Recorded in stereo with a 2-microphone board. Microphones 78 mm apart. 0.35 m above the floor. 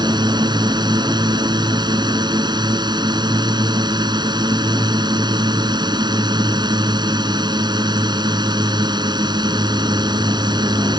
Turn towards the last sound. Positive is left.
turn(degrees=-70)  # may be behind; listen again after turning